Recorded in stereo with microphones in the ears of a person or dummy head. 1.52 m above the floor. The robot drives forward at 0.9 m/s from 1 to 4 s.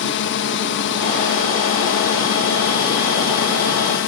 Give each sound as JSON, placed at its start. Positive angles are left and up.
{"t": 0.0, "sound": "a drone", "side_deg": 65}